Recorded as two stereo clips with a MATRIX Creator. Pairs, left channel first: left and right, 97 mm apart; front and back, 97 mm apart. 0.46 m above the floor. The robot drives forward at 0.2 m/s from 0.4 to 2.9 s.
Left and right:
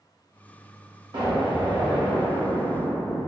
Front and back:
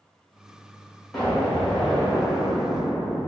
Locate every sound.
1.1 s an explosion: 80° right, 1.2 m; by 3.3 s 105° right, 1.2 m